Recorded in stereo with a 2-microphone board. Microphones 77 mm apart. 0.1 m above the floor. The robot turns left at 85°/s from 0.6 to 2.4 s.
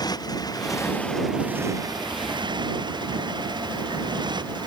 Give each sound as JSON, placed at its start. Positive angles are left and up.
{"t": 0.0, "sound": "a motorcycle", "side_deg": 60}